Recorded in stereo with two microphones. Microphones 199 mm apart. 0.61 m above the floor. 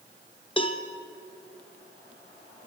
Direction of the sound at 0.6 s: 25° left (ahead or behind).